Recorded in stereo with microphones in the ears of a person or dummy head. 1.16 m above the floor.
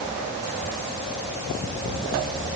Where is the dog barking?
No dog barking in this recording.